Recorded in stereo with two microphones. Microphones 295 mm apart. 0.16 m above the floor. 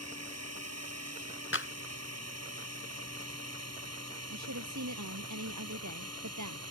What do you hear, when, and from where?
0.0 s a drone: 55° right (ahead or behind)
1.5 s a clap: 45° left (ahead or behind)
4.3 s a woman speaking: 70° right (ahead or behind)